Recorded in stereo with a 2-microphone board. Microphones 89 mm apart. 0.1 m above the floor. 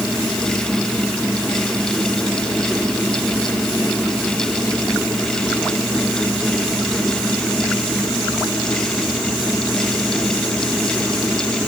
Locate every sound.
Only background noise.